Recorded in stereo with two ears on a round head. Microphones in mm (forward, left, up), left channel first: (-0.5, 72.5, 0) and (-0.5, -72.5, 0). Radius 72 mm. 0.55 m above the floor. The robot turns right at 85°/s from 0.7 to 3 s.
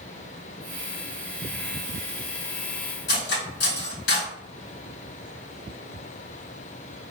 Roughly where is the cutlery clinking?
Left.